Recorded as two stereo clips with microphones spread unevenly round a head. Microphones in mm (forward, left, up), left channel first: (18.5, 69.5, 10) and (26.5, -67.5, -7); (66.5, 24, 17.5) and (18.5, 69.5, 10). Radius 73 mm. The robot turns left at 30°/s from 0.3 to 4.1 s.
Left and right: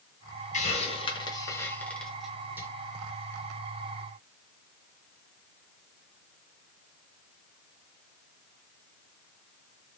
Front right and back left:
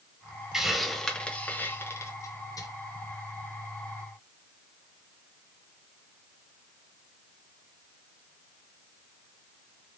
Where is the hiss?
55° left, 1.1 m; by 2.7 s 10° right, 1.1 m.